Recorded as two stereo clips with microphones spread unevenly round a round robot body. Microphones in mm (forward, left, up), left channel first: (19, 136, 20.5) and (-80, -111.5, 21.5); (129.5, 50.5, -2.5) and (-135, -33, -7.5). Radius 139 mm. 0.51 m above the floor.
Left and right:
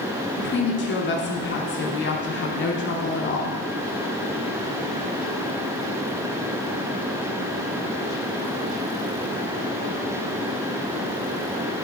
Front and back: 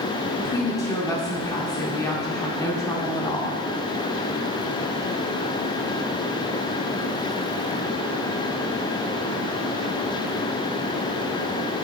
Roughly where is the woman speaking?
Left.